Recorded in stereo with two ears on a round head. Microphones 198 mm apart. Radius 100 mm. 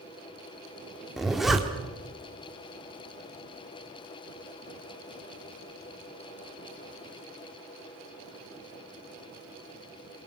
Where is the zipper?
Centre (ahead or behind), 1.7 m.